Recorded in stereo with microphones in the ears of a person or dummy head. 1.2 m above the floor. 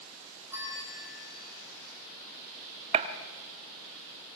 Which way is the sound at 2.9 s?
40° right (ahead or behind).